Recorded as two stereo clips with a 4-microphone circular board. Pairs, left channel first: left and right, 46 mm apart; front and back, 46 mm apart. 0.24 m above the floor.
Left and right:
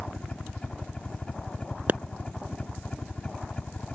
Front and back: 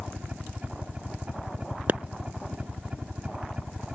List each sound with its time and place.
0.0 s a helicopter: 140° left
1.9 s a pop: 135° right